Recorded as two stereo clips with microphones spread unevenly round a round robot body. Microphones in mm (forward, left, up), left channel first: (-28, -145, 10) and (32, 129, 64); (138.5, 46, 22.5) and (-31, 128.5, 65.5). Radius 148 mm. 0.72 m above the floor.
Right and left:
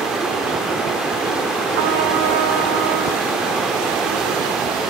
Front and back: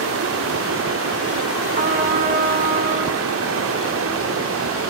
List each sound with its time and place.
0.0 s running water: 170° left, 1.6 m
1.8 s a trumpet: 110° left, 2.5 m